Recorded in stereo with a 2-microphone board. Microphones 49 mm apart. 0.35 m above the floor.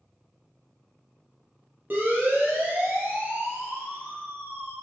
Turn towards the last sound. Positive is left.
turn(degrees=-50)  # may be behind; listen again after turning